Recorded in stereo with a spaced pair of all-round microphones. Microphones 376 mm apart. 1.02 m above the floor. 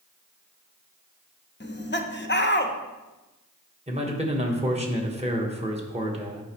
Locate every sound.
1.6 s laughter: 30° left (ahead or behind), 0.7 m
3.9 s a man speaking: 20° right (ahead or behind), 1.2 m